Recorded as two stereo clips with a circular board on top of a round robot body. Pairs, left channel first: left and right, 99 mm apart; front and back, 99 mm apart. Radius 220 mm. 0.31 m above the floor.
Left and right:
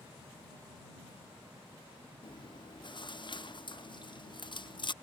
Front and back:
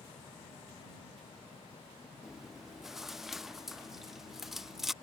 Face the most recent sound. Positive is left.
turn(degrees=95)